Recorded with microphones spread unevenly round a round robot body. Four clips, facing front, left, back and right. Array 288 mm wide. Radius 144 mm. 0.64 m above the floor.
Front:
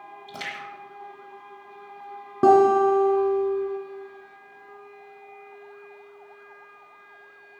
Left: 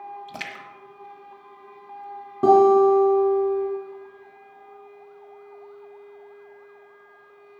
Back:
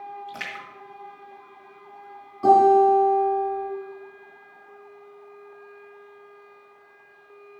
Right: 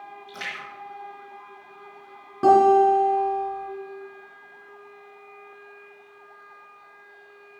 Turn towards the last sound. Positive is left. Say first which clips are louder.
# left 1 dB, back 1 dB
turn(degrees=5)